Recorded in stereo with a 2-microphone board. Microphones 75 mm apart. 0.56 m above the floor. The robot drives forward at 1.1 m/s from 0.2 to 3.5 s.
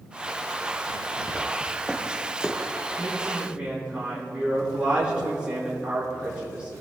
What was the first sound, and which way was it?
Footsteps, 25° right (ahead or behind).